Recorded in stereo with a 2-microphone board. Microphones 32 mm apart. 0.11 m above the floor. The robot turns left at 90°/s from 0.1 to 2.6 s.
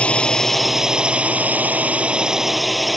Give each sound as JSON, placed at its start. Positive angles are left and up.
{"t": 0.0, "sound": "a drone", "azimuth_deg": 50}